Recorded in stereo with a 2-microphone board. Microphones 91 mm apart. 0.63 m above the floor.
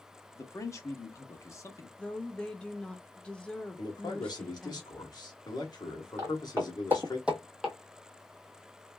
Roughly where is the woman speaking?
Centre.